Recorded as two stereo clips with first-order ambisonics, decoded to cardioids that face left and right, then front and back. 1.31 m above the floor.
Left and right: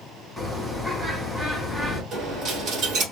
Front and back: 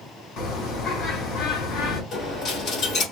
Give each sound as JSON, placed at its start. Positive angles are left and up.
{"t": 0.4, "sound": "a bird", "azimuth_deg": 5, "distance_m": 1.8}
{"t": 2.1, "sound": "a dropped coin", "azimuth_deg": -45, "distance_m": 1.7}